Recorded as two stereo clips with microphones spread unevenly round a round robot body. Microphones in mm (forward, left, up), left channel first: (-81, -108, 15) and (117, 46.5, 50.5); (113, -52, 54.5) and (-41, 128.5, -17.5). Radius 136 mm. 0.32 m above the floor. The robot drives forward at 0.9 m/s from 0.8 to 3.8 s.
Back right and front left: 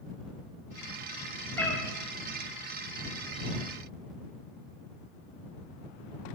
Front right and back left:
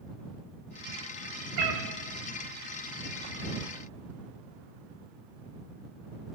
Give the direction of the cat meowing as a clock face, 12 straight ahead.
7 o'clock.